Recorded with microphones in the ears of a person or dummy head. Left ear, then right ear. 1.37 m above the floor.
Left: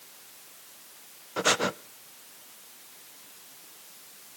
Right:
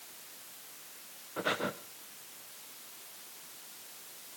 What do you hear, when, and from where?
1.4 s breathing: 80° left, 0.8 m